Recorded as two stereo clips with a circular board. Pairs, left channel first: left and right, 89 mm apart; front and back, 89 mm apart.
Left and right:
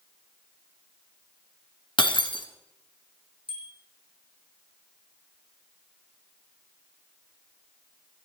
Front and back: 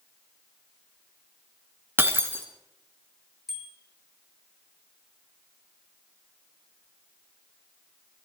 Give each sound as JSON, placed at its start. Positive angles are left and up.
{"t": 2.0, "sound": "breaking glass", "azimuth_deg": 115, "distance_m": 1.9}
{"t": 3.5, "sound": "a bicycle bell", "azimuth_deg": -90, "distance_m": 6.0}